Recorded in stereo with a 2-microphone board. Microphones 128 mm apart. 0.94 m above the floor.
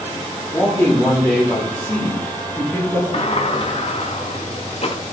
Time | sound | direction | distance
0.5 | a man speaking | 20° left (ahead or behind) | 2.5 m
3.1 | a sliding door | 50° left (ahead or behind) | 1.2 m